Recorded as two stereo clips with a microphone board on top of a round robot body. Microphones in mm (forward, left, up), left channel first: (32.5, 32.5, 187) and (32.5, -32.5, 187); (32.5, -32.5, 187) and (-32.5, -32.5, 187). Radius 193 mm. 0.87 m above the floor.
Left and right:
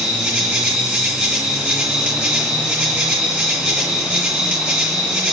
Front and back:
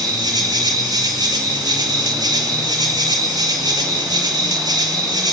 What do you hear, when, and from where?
0.0 s an insect: 160° right, 1.8 m